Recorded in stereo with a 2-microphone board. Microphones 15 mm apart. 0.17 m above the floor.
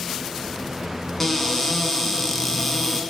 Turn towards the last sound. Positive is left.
turn(degrees=20)  # may be behind; listen again after turning